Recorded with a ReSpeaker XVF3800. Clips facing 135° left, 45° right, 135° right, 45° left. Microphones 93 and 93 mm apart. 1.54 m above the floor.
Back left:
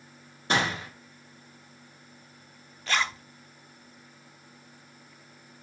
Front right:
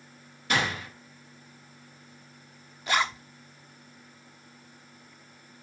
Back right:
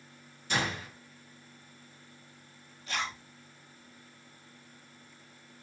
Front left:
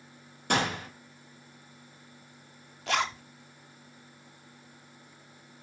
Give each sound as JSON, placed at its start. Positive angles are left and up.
{"t": 0.5, "sound": "a gunshot", "azimuth_deg": 75, "distance_m": 1.9}
{"t": 2.9, "sound": "a zipper", "azimuth_deg": 30, "distance_m": 1.0}